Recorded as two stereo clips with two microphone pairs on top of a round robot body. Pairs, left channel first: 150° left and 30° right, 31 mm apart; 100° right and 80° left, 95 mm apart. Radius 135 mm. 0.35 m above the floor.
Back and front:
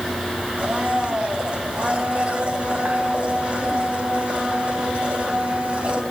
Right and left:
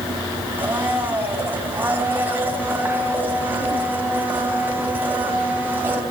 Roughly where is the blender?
Ahead.